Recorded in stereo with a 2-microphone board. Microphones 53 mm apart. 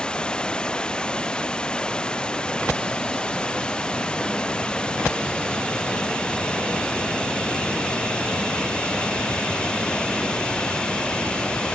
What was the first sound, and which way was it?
Running water, 15° left (ahead or behind).